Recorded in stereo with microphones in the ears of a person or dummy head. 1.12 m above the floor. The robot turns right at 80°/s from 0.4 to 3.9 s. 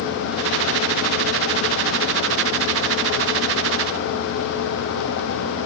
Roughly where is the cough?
I don't hear a cough.